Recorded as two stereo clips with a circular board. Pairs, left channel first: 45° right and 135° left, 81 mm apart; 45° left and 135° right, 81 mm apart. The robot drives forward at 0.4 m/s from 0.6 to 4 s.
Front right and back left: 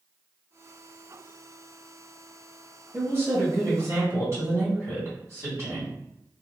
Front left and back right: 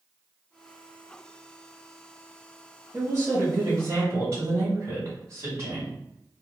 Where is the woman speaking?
Straight behind, 1.3 m.